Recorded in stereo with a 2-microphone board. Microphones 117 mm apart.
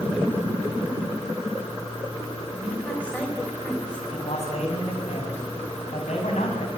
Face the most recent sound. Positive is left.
turn(degrees=75)  # may be behind; listen again after turning